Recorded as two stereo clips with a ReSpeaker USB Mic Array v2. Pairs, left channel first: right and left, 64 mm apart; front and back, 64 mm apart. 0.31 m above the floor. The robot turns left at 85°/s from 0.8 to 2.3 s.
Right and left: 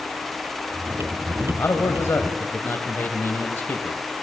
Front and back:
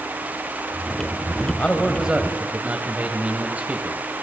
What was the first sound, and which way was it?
A man speaking, 65° right.